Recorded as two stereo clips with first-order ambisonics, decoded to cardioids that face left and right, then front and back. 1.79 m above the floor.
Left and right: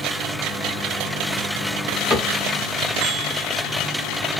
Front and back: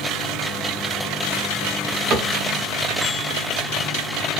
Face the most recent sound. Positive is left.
turn(degrees=145)